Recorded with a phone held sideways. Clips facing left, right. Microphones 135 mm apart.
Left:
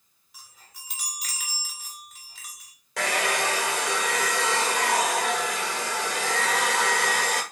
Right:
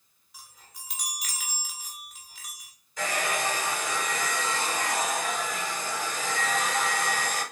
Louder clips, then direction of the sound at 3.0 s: Left 3 dB; 90° left.